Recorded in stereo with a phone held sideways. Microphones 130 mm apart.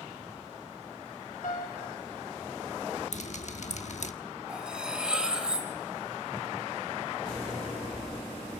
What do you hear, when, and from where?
1.4 s a piano: 70° left (ahead or behind), 2 m
3.1 s dripping: 60° left (ahead or behind), 1.2 m
4.5 s cutlery clinking: 5° right (ahead or behind), 3.5 m